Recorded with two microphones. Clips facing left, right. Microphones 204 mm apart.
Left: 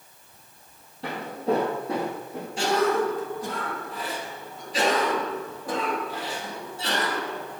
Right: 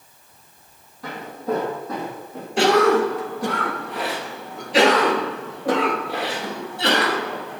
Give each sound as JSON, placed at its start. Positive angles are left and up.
{"t": 1.0, "sound": "footsteps", "side_deg": 30, "distance_m": 3.5}
{"t": 2.6, "sound": "a cough", "side_deg": -75, "distance_m": 0.6}